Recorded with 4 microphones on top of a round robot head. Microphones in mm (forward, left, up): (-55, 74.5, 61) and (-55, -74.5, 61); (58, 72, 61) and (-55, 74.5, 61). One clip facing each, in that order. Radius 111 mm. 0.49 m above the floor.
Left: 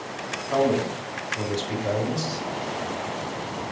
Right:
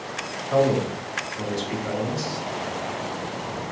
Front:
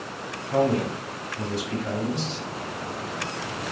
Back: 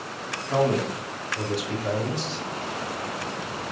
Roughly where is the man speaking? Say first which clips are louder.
Right 2 dB, even; behind.